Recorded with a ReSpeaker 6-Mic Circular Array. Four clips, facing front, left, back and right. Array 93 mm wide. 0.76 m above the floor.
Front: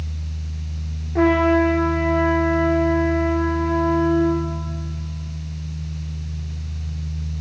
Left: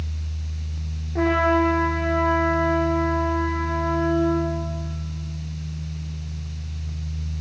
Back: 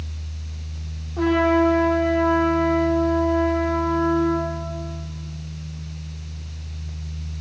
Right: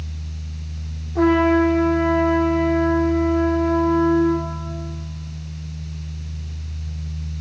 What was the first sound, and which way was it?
A trumpet, 20° left.